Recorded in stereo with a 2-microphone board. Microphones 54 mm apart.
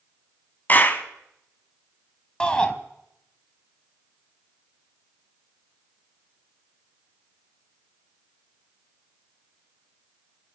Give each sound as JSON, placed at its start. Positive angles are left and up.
{"t": 0.7, "sound": "a clap", "side_deg": 35, "distance_m": 1.6}
{"t": 2.4, "sound": "a shout", "side_deg": 15, "distance_m": 1.4}